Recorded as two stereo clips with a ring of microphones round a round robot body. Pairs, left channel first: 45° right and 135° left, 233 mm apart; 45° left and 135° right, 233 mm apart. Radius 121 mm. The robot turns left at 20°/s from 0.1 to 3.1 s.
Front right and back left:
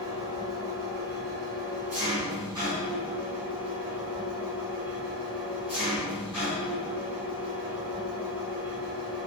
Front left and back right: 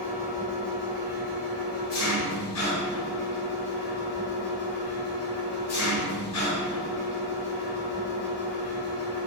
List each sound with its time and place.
0.0 s an engine running: 110° left, 1.3 m; by 9.3 s 50° left, 1.3 m